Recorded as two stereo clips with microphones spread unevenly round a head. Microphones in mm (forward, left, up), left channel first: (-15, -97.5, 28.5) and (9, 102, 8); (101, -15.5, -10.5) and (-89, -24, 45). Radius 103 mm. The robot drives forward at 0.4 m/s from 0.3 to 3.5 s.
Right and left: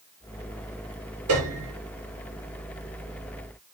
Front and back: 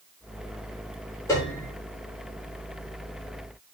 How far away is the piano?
About 8 m.